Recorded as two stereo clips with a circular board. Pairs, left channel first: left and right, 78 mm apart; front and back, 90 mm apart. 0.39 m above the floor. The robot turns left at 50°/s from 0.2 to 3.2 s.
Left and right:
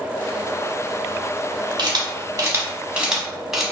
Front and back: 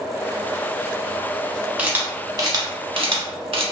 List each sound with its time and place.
1.8 s a camera shutter: 105° right, 0.8 m; by 3.6 s 175° right, 0.8 m